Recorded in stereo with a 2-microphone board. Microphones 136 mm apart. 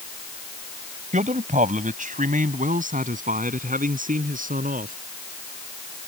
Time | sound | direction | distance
1.1 | a man speaking | 65° right (ahead or behind) | ?